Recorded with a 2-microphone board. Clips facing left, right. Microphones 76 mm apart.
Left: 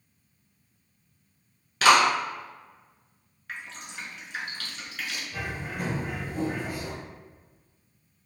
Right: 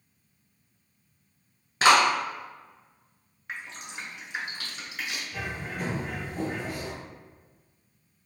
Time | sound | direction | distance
1.8 | a clap | 30° right (ahead or behind) | 1.0 m
3.5 | dripping | 20° right (ahead or behind) | 0.7 m
5.3 | a bird | 10° left (ahead or behind) | 0.9 m